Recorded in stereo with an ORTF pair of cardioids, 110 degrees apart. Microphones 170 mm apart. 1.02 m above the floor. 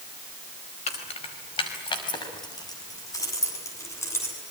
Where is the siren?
No siren in this recording.